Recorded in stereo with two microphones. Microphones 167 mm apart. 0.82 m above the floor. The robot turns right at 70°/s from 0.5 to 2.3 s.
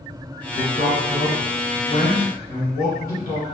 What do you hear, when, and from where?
0.6 s a man speaking: 90° right, 1.2 m; by 3.4 s 30° left, 1.2 m